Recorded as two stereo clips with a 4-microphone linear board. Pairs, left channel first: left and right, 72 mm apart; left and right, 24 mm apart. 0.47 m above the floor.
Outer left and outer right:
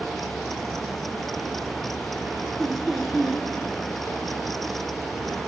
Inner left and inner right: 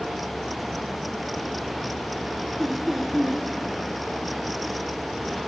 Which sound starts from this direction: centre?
Laughter, at 2.6 s.